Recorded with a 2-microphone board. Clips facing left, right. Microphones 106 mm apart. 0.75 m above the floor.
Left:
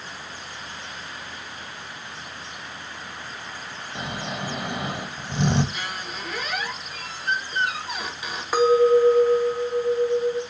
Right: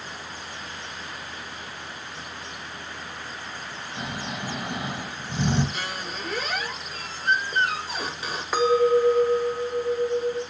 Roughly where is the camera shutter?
No camera shutter in this recording.